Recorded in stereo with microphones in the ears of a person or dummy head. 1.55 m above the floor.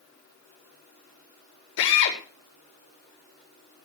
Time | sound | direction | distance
1.8 | a drill | 65° left (ahead or behind) | 4.5 m